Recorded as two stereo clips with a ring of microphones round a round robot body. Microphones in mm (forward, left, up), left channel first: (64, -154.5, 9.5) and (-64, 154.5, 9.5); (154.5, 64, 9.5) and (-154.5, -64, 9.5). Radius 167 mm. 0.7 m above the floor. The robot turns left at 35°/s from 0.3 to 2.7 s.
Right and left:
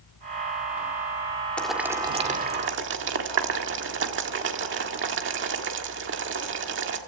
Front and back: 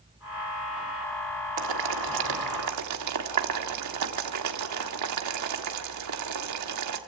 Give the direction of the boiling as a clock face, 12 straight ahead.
5 o'clock.